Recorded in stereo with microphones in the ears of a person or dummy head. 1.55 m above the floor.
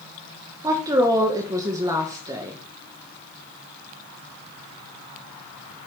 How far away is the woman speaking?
About 1.4 m.